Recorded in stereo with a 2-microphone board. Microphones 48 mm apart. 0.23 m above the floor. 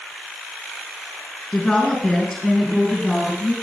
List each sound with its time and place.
1.5 s a woman speaking: 5° left (ahead or behind), 3.5 m; by 3.5 s centre (ahead or behind), 4 m